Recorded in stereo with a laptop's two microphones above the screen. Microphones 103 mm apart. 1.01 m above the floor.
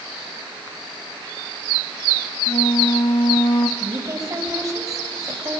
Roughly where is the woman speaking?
Right.